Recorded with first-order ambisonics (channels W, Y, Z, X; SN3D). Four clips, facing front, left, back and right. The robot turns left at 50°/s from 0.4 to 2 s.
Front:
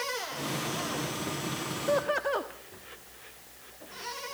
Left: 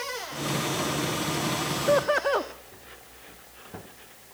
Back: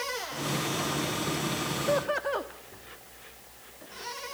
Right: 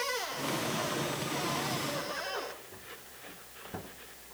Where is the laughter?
95° left, 1.0 m; by 2.5 s 85° left, 1.0 m.